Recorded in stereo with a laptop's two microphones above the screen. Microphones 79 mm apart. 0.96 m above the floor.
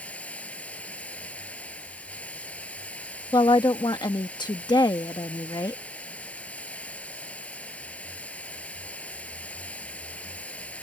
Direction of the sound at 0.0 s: 15° left (ahead or behind).